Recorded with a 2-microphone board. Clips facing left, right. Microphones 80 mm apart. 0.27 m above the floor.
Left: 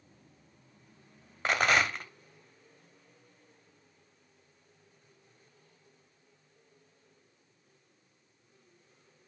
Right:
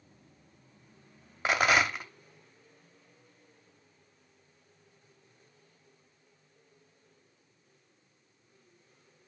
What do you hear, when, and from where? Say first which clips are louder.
1.4 s a rattle: right 1 dB; 5° right (ahead or behind), 0.7 m